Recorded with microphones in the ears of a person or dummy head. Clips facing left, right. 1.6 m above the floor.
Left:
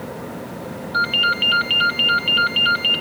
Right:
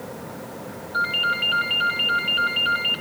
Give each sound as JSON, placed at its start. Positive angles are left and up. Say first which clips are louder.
{"t": 0.9, "sound": "a ringtone", "louder": "left 3 dB", "side_deg": 50, "distance_m": 2.5}